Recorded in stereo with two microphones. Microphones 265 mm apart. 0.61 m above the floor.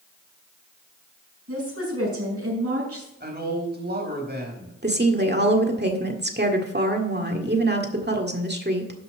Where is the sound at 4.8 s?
40° right (ahead or behind), 1.7 m.